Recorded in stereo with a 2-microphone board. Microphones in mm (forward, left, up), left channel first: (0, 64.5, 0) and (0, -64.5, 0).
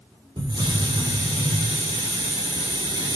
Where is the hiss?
35° right (ahead or behind), 3 m.